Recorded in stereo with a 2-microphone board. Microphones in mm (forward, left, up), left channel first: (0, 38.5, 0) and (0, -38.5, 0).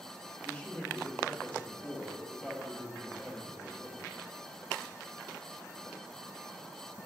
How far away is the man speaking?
About 1.2 m.